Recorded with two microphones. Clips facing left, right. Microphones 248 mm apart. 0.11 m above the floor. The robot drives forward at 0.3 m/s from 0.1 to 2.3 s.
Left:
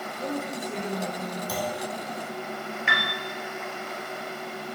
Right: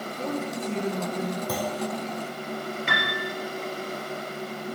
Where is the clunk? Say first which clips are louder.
Right 2 dB; 55° right (ahead or behind), 2 m; by 1.8 s 60° right (ahead or behind), 2 m.